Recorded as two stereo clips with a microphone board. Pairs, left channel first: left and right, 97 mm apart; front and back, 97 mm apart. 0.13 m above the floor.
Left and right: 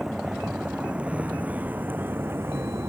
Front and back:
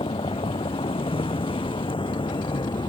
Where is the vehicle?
5° right; by 2.9 s 25° right.